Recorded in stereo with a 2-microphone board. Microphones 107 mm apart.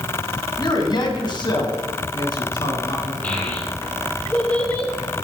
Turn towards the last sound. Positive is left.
turn(degrees=15)  # may be behind; listen again after turning